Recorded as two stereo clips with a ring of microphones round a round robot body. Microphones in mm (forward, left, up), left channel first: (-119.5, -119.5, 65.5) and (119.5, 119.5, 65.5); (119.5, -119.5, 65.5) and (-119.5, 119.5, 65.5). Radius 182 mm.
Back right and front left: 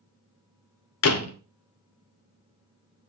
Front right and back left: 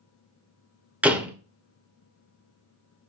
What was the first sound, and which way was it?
A door slam, 140° right.